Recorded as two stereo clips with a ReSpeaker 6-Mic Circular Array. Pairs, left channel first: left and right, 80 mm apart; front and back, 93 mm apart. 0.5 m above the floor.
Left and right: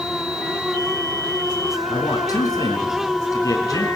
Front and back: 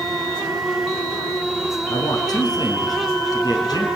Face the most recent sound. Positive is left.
turn(degrees=45)